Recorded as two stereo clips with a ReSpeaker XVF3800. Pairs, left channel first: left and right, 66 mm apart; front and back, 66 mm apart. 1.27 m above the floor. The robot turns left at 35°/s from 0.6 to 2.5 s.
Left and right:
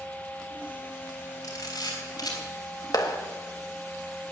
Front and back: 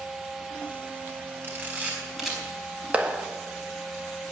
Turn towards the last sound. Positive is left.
turn(degrees=110)